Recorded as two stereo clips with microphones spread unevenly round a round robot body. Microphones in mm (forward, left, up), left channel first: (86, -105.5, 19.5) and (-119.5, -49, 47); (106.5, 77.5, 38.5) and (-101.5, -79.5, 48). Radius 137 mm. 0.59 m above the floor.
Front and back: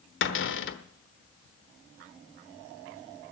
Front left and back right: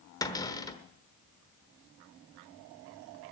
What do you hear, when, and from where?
0.2 s a cupboard door: 40° right, 1.2 m